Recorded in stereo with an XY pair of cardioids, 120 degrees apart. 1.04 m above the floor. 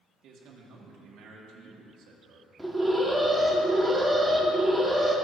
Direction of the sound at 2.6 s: 5° right.